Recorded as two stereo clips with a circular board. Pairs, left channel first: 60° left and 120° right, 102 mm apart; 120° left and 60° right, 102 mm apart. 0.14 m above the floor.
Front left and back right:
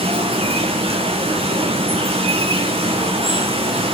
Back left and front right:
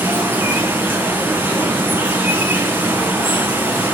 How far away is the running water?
About 1.2 m.